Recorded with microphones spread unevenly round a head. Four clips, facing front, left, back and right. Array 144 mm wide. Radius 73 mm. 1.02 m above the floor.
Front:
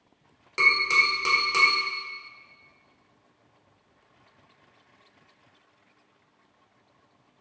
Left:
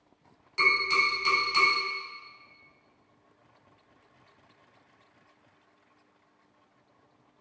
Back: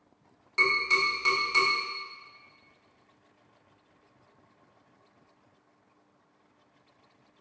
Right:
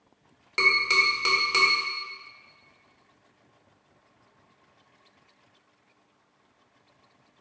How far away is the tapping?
About 1.3 m.